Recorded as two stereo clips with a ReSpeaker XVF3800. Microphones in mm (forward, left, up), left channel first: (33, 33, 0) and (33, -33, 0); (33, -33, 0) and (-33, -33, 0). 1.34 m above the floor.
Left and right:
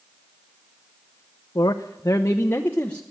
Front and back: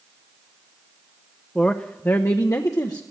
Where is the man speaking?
80° left, 0.6 m; by 3.0 s 20° left, 1.0 m.